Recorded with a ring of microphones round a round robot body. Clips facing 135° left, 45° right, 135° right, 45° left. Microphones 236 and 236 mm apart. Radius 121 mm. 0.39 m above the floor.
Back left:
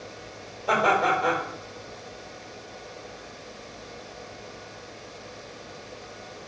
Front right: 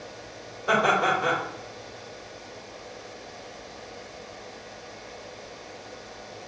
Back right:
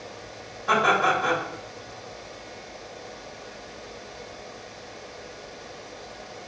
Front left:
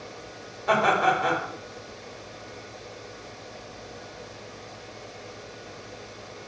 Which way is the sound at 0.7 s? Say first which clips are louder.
Even, even; 30° left.